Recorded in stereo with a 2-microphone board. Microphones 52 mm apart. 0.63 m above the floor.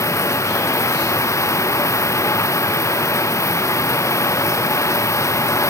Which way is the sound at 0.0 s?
65° left (ahead or behind).